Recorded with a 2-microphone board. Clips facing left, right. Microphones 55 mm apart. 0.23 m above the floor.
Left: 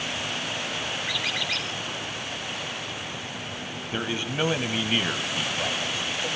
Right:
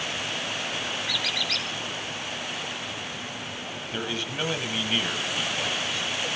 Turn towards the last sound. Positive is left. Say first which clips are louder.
# left 3 dB
turn(degrees=15)  # may be behind; listen again after turning